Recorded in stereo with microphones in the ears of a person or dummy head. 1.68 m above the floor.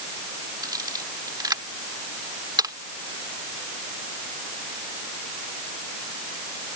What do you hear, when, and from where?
0.6 s a camera shutter: 20° right (ahead or behind)